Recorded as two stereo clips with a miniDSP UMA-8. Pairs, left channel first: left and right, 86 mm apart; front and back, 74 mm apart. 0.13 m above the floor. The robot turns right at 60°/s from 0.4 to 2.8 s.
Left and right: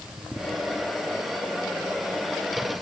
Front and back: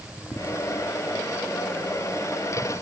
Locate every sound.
Only background noise.